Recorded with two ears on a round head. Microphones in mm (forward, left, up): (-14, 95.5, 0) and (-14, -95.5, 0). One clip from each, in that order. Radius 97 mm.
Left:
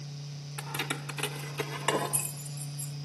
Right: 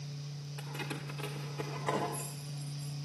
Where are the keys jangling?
40° left (ahead or behind), 1.3 m; by 3.0 s 75° left (ahead or behind), 2.5 m.